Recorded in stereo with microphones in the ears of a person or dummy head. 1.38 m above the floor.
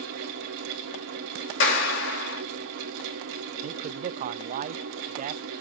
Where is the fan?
80° right, 2 m.